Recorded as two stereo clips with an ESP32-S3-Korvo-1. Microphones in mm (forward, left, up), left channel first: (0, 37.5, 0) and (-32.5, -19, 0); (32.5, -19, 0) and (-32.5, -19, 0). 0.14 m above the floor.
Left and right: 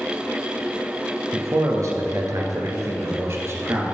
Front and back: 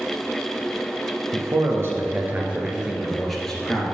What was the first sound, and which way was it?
A man speaking, 150° right.